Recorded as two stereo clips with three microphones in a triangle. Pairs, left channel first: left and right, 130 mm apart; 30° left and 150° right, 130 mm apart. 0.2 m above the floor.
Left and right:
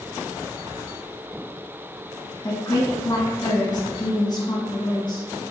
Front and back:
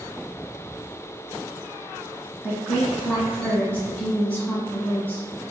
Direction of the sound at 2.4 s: 100° left.